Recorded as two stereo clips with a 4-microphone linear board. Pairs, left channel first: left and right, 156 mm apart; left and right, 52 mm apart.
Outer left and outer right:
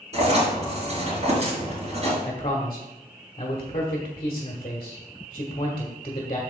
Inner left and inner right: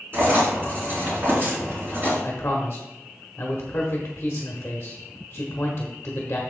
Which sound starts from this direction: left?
A man speaking, at 2.2 s.